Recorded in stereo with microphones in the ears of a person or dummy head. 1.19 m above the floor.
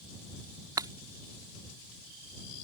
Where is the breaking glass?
20° right (ahead or behind).